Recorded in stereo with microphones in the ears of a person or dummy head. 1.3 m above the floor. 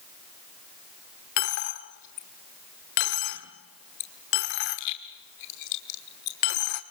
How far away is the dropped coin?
About 1.2 m.